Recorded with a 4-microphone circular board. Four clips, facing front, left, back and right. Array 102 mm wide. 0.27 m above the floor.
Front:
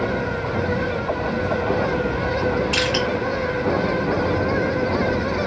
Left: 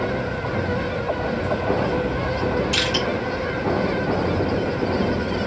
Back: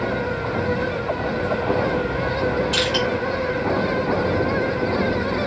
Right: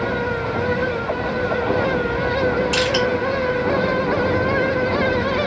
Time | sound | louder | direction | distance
2.7 | crushing | right 4 dB, even | 40° right | 1.7 m